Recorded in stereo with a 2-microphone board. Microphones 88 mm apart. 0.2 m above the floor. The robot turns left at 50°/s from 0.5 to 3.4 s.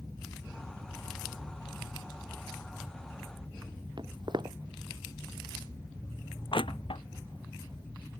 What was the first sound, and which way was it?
Footsteps, 60° right (ahead or behind).